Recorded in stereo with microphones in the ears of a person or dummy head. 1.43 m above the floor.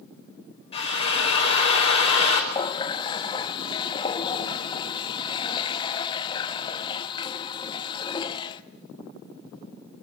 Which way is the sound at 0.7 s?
35° left (ahead or behind).